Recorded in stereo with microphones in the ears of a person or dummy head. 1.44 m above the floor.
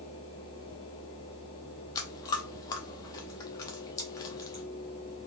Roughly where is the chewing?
Centre.